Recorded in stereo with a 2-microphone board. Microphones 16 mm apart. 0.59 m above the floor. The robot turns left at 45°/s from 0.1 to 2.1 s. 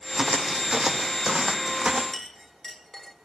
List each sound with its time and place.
0.1 s footsteps: 30° right (ahead or behind), 1.3 m; by 2.0 s 20° right (ahead or behind), 1.5 m
2.1 s a clink: 25° left (ahead or behind), 1.3 m